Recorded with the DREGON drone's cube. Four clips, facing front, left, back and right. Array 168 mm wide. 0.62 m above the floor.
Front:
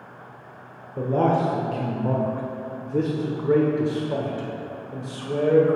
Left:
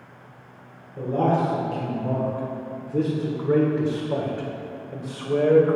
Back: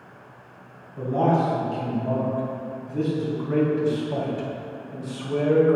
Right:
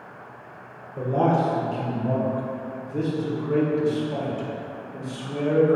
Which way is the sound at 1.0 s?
10° right.